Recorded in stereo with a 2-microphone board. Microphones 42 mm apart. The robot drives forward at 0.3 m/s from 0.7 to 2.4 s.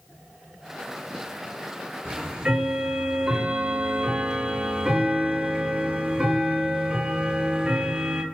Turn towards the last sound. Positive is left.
turn(degrees=-20)  # may be behind; listen again after turning